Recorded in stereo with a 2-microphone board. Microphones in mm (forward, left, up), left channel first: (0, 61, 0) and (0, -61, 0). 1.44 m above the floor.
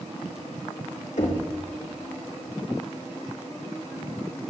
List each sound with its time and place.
1.2 s knocking: 80° left, 2.0 m